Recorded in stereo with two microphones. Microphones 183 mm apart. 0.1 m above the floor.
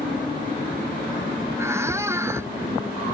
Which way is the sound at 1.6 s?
15° right (ahead or behind).